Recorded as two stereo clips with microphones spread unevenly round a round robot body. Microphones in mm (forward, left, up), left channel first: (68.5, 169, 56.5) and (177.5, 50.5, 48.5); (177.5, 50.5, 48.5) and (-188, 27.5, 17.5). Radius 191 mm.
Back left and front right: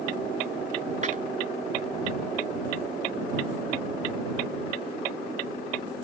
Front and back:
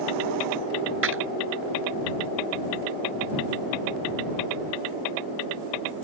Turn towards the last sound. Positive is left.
turn(degrees=-115)